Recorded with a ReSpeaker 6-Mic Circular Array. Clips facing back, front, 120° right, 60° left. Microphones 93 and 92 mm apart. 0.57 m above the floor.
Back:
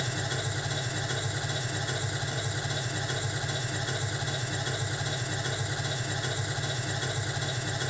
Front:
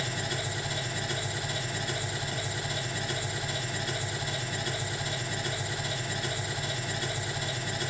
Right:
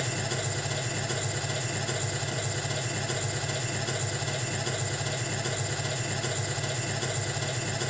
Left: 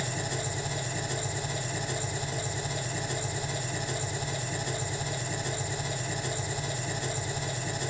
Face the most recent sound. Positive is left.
turn(degrees=-110)